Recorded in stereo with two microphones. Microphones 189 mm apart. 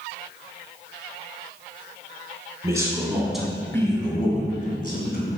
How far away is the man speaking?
About 3 m.